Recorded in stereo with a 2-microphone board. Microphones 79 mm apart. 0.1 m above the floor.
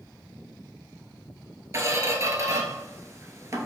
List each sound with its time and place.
1.7 s a squeak: 40° right (ahead or behind), 0.7 m